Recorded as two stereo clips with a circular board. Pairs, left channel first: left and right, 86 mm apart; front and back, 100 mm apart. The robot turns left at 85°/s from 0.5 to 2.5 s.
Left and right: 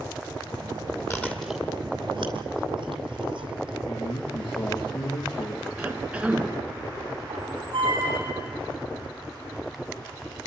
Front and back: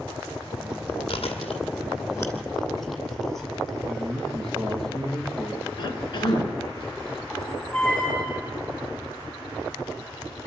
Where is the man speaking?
85° left, 3 m.